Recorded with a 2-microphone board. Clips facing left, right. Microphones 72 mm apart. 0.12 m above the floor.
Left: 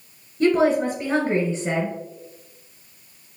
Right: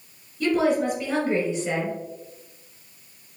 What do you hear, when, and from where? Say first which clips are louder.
0.4 s a woman speaking: left 3 dB; 30° left (ahead or behind), 1.4 m